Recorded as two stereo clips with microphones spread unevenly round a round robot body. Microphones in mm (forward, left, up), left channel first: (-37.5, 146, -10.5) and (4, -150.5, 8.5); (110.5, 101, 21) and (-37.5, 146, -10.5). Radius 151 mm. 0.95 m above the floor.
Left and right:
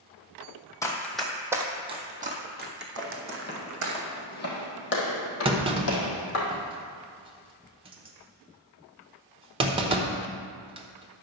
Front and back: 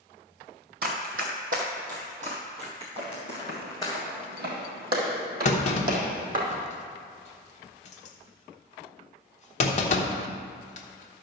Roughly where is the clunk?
Ahead.